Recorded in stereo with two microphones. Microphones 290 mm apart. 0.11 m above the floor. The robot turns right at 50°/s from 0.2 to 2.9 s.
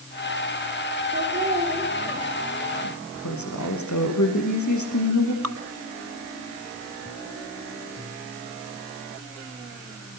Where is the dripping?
60° right (ahead or behind), 0.7 m.